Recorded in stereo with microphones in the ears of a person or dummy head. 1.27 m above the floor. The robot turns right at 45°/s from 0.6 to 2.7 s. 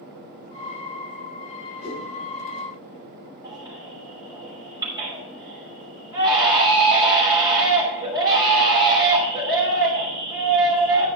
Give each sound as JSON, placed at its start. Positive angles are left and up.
{"t": 1.8, "sound": "a whoosh", "side_deg": 50, "distance_m": 4.5}
{"t": 3.4, "sound": "a baby crying", "side_deg": -15, "distance_m": 3.0}